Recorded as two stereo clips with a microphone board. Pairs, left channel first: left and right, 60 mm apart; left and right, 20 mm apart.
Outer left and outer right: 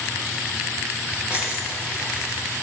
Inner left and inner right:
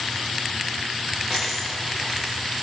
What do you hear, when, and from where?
1.3 s a dropped coin: 55° right (ahead or behind), 6.5 m